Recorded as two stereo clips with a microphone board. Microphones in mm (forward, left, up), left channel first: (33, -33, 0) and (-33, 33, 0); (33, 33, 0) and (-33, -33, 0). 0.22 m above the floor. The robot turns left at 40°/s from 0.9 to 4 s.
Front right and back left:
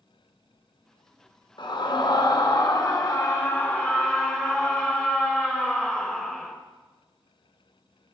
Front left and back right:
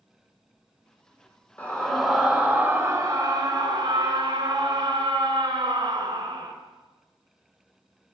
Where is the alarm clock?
No alarm clock in this recording.